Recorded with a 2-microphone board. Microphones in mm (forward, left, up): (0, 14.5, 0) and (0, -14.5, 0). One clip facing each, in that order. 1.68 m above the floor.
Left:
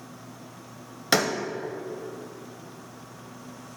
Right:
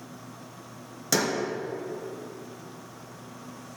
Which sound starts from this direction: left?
A door slam, at 1.1 s.